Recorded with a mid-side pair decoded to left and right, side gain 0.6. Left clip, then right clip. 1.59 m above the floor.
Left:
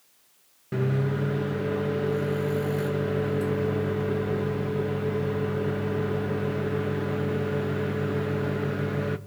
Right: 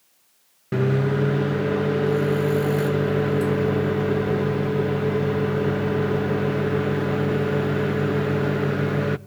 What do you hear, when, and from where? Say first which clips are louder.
0.7 s a microwave: right 6 dB; 35° right, 0.8 m